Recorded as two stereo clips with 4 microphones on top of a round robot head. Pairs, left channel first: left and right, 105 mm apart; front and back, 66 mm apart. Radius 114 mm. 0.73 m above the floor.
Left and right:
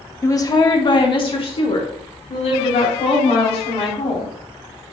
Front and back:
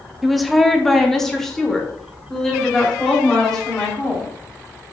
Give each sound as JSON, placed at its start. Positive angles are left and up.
{"t": 0.2, "sound": "a woman speaking", "azimuth_deg": 95, "distance_m": 1.0}